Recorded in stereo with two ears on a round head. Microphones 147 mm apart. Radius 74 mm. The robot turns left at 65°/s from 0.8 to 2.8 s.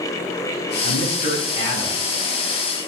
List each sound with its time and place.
0.8 s a man speaking: 85° left, 6 m; by 2.2 s 5° right, 6 m